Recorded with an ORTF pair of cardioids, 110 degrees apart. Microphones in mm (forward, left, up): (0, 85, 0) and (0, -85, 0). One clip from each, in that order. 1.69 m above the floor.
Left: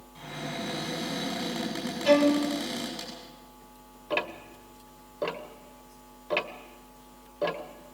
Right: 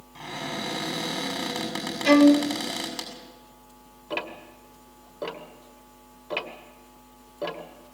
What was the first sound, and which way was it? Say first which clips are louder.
A cupboard door: right 4 dB; 50° right.